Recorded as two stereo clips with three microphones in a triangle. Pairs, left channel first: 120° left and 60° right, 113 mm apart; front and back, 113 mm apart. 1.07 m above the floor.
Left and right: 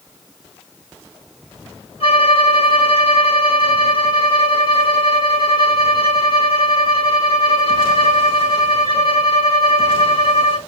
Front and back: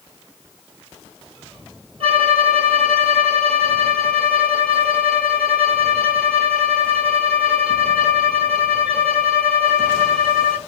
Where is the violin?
150° left, 1.8 m.